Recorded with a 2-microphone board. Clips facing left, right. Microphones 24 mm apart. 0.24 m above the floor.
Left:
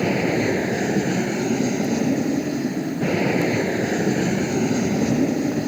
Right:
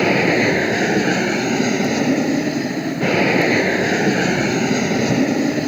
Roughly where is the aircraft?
Right.